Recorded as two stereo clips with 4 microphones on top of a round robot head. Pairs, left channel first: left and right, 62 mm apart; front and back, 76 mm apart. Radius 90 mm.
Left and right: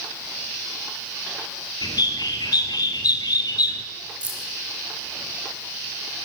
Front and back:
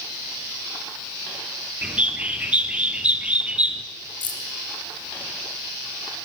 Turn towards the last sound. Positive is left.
turn(degrees=-15)